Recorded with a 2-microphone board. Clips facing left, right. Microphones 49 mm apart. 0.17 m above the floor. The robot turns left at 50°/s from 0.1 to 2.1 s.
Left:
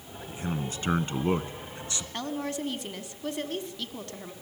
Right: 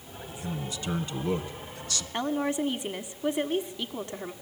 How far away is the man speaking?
About 1.4 m.